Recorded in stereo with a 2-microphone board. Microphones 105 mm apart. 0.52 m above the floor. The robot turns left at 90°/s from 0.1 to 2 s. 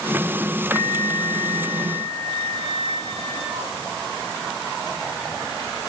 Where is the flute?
Straight ahead, 6 m; by 3.7 s 115° right, 6 m.